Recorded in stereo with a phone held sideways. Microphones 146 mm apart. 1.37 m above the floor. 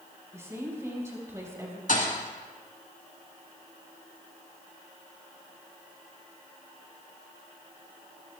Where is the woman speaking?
20° right (ahead or behind), 4.5 m.